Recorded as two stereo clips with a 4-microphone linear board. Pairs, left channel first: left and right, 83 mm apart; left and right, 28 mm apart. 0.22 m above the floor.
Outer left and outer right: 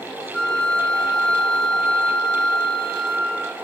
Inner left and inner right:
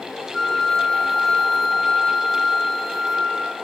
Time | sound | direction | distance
0.3 | a flute | 10° left (ahead or behind) | 0.7 m